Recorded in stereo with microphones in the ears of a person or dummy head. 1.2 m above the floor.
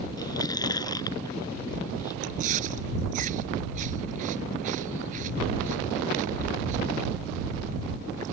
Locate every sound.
0.2 s chewing: 20° left (ahead or behind)
2.2 s chewing: 45° right (ahead or behind)